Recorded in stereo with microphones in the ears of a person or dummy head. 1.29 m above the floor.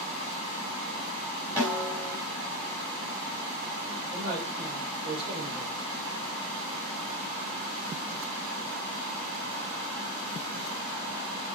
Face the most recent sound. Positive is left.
turn(degrees=-30)  # may be behind; listen again after turning